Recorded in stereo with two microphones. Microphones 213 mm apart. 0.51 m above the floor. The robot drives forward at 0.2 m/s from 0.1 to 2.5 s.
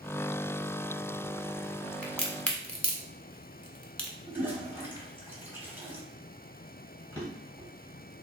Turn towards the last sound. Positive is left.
turn(degrees=-10)  # may be behind; listen again after turning